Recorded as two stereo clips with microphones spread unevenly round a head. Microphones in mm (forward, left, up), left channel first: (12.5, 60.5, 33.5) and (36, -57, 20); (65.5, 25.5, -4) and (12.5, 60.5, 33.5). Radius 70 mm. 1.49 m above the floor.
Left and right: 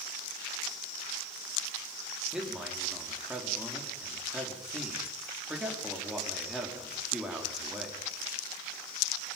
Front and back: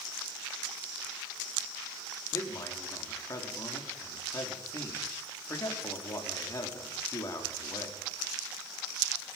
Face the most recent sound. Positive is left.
turn(degrees=5)